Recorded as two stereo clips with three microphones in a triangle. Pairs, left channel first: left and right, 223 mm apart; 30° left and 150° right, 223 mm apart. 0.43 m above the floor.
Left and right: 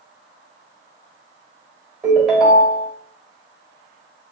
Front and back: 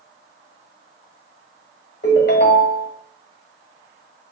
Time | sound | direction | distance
2.0 | a ringtone | straight ahead | 1.1 m